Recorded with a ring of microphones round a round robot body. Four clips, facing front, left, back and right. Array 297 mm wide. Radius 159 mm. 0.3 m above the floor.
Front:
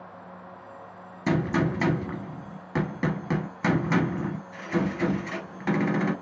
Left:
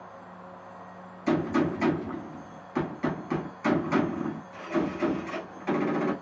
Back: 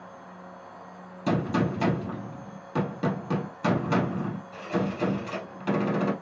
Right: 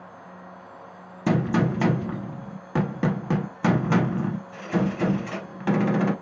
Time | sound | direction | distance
1.3 | a gunshot | 80° right | 1.7 m